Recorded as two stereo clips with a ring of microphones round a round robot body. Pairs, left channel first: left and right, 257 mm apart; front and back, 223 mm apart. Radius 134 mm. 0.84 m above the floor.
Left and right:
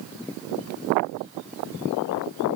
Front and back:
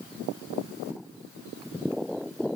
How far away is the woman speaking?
No woman speaking in this recording.